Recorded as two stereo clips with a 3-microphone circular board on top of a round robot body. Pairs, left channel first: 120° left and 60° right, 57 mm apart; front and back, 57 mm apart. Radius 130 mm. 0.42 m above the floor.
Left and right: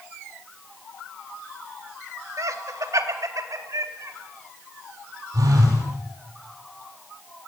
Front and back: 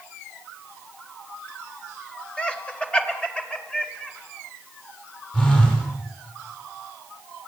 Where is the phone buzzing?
65° right, 7.5 m.